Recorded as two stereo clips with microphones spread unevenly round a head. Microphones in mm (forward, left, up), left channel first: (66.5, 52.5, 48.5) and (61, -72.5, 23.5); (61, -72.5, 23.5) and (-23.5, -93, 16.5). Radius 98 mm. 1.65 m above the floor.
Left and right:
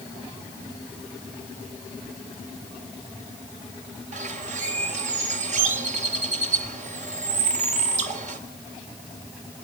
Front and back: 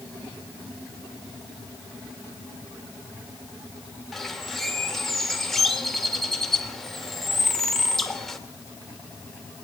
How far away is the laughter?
I don't hear laughter.